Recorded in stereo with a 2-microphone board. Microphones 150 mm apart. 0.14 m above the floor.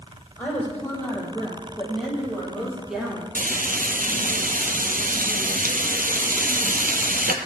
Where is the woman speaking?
10° left (ahead or behind), 5 m; by 3.2 s 5° right (ahead or behind), 4 m.